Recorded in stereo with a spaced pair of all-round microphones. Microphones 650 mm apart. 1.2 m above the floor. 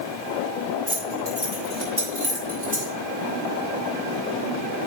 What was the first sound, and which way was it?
Keys jangling, 35° right (ahead or behind).